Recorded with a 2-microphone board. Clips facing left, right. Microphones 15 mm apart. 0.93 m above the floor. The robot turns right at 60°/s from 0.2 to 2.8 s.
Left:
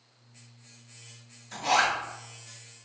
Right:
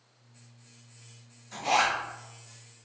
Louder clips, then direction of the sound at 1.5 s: Left 1 dB; 25° left (ahead or behind).